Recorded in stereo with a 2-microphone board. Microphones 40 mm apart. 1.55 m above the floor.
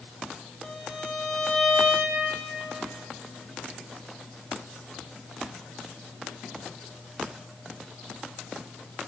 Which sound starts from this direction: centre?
A violin, at 0.6 s.